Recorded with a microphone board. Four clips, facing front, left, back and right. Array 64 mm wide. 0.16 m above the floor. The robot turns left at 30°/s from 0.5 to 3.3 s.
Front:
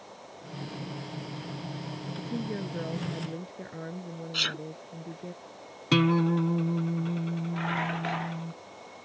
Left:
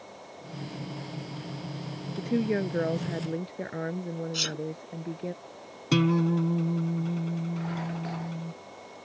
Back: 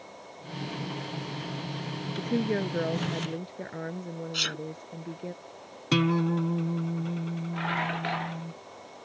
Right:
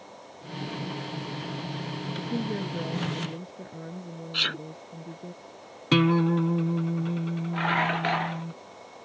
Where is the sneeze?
80° right.